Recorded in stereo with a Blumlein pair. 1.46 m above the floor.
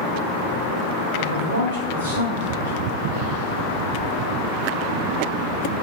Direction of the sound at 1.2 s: 60° right.